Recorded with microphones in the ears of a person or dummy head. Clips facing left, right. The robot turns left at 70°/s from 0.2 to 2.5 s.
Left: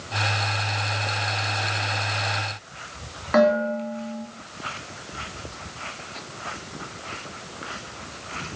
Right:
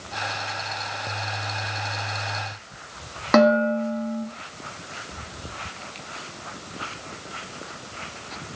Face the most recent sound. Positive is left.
turn(degrees=-60)  # may be behind; listen again after turning